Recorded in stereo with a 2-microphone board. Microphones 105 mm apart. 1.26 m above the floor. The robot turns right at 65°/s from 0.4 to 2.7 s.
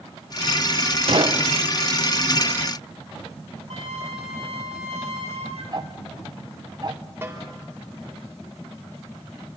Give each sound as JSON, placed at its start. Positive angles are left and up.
{"t": 1.1, "sound": "a gunshot", "side_deg": -60, "distance_m": 1.0}
{"t": 3.7, "sound": "a flute", "side_deg": -70, "distance_m": 2.5}
{"t": 5.7, "sound": "ticking", "side_deg": -40, "distance_m": 0.9}
{"t": 7.2, "sound": "a snare drum", "side_deg": -20, "distance_m": 4.0}